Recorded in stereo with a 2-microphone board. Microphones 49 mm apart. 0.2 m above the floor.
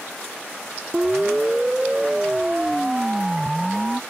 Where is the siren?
20° right (ahead or behind); by 4.0 s 10° right (ahead or behind).